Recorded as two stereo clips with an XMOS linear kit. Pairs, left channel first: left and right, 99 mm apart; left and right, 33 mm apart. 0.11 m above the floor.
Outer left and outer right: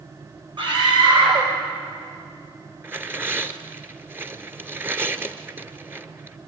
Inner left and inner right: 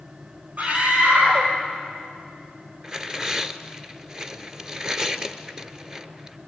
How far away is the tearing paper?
About 0.9 m.